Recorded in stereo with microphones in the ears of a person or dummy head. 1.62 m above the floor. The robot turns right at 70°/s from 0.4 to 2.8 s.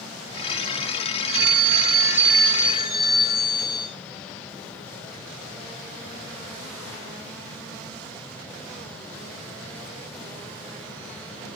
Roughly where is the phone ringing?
Right.